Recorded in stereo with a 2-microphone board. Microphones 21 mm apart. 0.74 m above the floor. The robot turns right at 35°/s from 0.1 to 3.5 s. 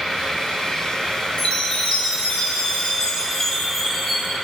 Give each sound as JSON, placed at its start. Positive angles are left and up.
{"t": 1.4, "sound": "a chime", "azimuth_deg": 80, "distance_m": 2.0}